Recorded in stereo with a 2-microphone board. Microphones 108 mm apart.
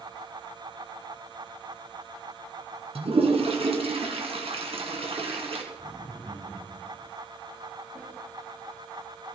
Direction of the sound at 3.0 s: 60° right (ahead or behind).